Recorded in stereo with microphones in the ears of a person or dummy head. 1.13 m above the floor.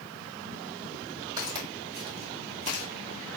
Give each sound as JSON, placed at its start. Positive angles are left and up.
{"t": 1.4, "sound": "footsteps", "side_deg": -20, "distance_m": 1.6}